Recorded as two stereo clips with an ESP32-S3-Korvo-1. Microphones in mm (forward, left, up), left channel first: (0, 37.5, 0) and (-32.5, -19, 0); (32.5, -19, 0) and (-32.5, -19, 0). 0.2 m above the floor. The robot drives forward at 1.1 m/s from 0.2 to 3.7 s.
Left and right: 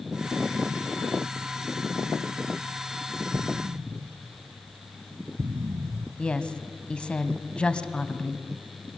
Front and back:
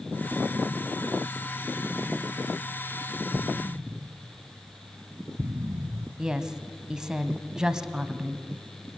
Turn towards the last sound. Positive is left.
turn(degrees=115)